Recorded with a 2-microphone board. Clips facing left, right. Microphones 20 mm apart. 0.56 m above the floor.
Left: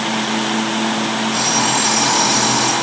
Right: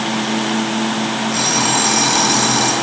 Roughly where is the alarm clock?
Right.